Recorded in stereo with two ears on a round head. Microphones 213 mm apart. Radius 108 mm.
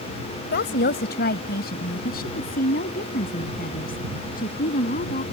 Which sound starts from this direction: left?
A woman speaking, at 0.5 s.